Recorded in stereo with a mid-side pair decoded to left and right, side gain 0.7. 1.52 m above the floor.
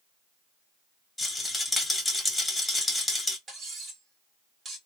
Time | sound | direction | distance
1.2 | a rattle | 5° left | 1.6 m
3.5 | cutlery clinking | 25° right | 1.9 m